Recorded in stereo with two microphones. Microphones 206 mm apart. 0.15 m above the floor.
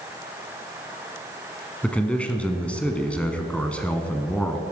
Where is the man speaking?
5° left (ahead or behind), 1.0 m.